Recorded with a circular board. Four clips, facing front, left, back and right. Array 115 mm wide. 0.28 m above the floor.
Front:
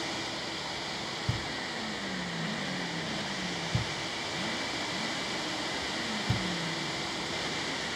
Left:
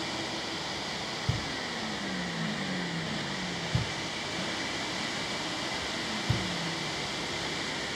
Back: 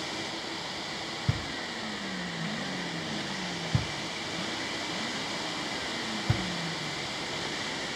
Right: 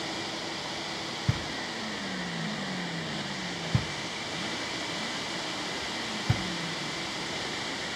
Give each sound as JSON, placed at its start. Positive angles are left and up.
{"t": 1.3, "sound": "knocking", "azimuth_deg": -120, "distance_m": 1.0}